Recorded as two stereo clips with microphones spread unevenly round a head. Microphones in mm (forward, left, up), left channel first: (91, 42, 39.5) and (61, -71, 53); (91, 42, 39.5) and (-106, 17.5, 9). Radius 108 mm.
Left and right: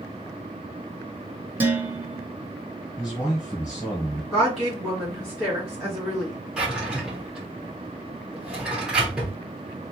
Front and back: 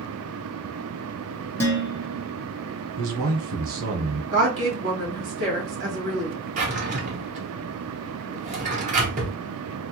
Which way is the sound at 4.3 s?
165° left.